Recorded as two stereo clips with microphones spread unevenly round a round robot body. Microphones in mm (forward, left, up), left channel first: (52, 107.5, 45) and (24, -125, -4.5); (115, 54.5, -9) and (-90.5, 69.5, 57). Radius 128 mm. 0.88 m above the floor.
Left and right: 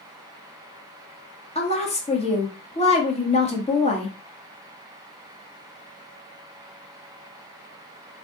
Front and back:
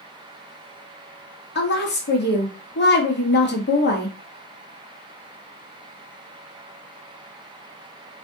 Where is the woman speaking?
15° left, 1.5 m.